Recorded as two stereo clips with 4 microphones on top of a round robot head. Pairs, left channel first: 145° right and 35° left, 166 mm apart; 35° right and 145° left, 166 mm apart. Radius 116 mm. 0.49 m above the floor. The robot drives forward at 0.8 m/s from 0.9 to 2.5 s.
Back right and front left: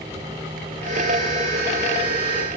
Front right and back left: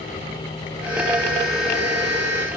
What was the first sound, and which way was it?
Only background noise.